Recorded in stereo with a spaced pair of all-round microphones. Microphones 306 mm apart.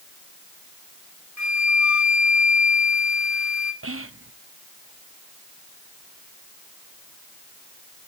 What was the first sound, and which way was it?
A flute, 65° left (ahead or behind).